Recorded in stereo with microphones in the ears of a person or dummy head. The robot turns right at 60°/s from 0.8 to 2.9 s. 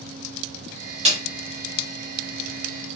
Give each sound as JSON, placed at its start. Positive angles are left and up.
{"t": 1.1, "sound": "a snare drum", "side_deg": -35, "distance_m": 1.0}